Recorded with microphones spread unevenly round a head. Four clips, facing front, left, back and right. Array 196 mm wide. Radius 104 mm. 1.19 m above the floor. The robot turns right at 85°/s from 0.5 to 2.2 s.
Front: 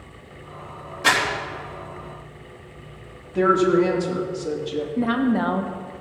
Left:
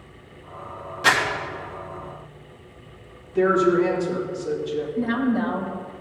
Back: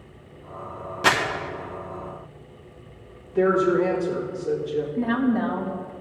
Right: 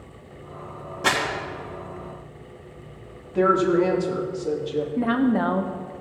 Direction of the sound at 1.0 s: 150° right.